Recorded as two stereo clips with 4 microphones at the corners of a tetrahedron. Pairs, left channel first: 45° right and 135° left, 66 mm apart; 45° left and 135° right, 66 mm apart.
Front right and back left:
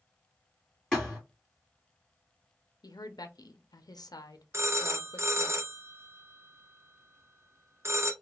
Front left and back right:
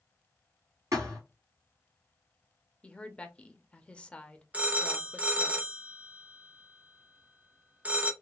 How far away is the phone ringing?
About 0.6 m.